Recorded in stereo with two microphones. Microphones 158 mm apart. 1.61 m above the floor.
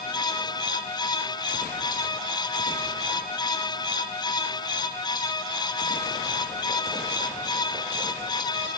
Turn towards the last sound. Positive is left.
No sound to turn to.